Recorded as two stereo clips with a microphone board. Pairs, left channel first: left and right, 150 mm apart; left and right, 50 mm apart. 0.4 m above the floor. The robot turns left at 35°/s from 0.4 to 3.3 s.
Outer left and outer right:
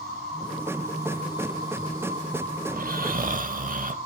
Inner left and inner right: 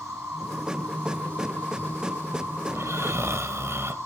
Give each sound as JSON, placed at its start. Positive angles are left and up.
{"t": 0.0, "sound": "an insect", "azimuth_deg": 180, "distance_m": 7.0}
{"t": 2.7, "sound": "snoring", "side_deg": -75, "distance_m": 0.6}